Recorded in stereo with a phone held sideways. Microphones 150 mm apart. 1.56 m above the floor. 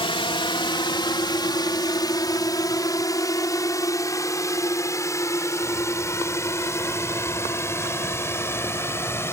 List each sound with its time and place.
0.0 s a drone: 35° left (ahead or behind); by 9.3 s 15° left (ahead or behind)